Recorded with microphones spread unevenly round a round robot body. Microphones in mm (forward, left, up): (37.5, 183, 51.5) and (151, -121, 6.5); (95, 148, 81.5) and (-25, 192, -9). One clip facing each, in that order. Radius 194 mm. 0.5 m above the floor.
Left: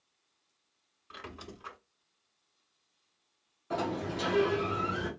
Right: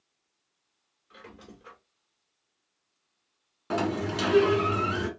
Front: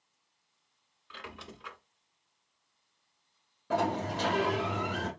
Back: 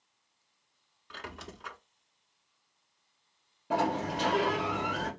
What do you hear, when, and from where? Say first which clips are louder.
1.1 s a squeak: left 2 dB, back 2 dB; 105° left, 0.9 m
3.7 s a sliding door: right 5 dB, even; 85° right, 1.3 m